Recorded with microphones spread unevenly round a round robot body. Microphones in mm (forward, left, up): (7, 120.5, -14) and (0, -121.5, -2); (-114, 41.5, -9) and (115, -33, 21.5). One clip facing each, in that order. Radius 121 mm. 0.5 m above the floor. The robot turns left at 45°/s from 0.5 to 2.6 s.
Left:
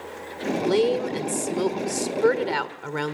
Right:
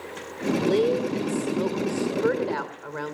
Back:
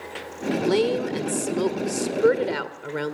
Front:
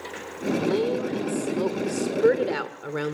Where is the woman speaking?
160° left, 2.0 m; by 3.1 s 75° left, 2.0 m.